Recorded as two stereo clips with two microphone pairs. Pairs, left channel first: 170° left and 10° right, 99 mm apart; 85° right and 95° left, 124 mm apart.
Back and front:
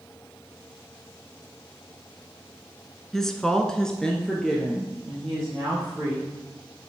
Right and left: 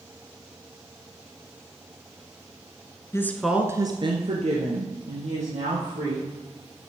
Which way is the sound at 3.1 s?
110° right.